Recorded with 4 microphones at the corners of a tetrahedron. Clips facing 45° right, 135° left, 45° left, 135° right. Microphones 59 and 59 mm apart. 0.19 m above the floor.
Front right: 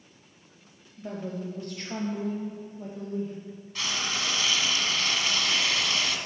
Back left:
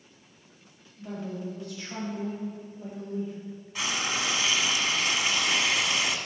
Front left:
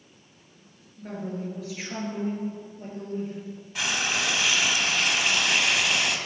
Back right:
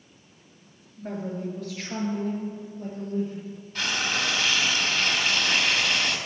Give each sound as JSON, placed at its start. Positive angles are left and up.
{"t": 1.0, "sound": "a woman speaking", "azimuth_deg": -55, "distance_m": 3.0}
{"t": 3.8, "sound": "frying", "azimuth_deg": 105, "distance_m": 0.9}